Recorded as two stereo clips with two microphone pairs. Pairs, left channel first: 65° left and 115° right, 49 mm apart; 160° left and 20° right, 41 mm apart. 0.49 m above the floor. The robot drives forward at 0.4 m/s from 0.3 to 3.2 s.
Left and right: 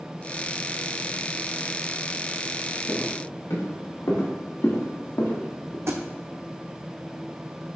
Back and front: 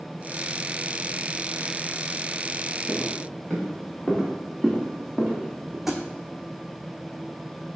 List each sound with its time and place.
2.9 s footsteps: 80° left, 3.5 m; by 5.8 s 60° left, 2.5 m
5.9 s a thud: 105° right, 1.2 m